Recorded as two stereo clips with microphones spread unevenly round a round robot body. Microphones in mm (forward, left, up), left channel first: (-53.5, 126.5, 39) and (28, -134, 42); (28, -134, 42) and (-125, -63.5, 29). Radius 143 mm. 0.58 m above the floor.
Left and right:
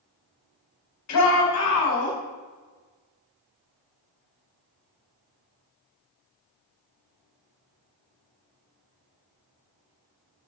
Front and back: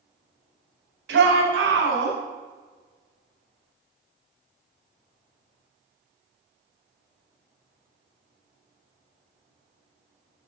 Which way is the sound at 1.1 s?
135° left.